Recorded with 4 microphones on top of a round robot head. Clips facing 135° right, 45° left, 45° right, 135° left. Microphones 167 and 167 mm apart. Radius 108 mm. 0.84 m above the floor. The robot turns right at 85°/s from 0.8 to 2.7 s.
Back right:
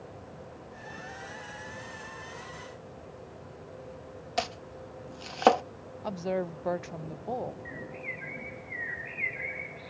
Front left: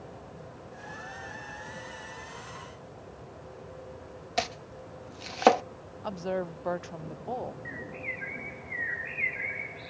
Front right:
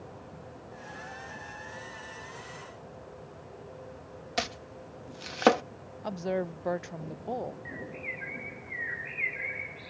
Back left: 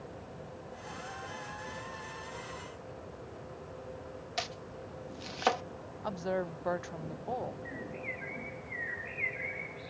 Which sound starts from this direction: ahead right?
Chopping, at 4.4 s.